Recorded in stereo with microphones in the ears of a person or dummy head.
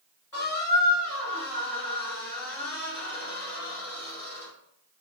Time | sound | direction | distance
0.3 | a squeak | 20° left (ahead or behind) | 1.3 m